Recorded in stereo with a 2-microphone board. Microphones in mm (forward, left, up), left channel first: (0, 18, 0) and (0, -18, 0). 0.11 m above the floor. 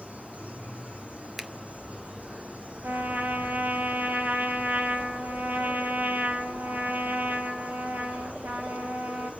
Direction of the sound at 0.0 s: 45° right (ahead or behind).